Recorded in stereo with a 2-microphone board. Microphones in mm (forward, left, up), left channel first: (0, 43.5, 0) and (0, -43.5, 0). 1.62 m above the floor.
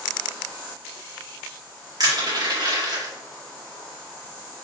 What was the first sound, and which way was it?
Crushing, 45° right (ahead or behind).